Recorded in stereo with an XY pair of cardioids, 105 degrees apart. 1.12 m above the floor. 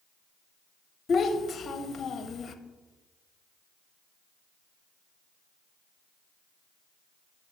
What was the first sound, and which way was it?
A child speaking, 45° left.